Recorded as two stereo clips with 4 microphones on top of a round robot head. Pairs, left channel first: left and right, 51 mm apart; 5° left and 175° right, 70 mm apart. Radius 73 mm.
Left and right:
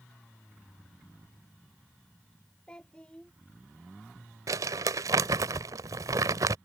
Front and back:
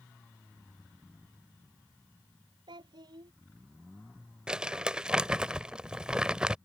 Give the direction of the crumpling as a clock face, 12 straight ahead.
3 o'clock.